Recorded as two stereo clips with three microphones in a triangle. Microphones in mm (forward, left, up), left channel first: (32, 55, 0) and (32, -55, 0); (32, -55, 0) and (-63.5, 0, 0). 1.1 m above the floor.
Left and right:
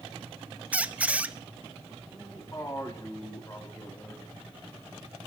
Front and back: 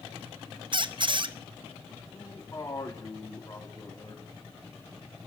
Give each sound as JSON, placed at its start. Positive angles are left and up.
{"t": 0.7, "sound": "a squeak", "azimuth_deg": -165, "distance_m": 0.6}
{"t": 2.1, "sound": "a man speaking", "azimuth_deg": 30, "distance_m": 3.0}